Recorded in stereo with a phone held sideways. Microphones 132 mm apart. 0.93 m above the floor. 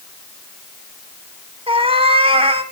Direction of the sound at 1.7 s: 45° right (ahead or behind).